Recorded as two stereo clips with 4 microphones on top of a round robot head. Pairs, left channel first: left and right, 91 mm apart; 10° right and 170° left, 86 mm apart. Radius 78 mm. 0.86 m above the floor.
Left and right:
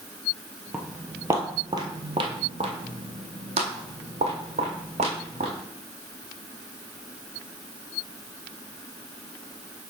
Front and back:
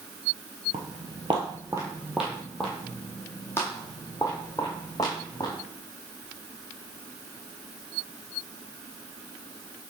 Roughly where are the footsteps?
Behind.